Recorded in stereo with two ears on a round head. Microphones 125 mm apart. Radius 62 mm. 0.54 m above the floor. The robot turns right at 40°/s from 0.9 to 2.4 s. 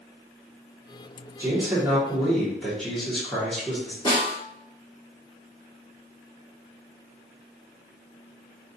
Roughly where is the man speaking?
Ahead right.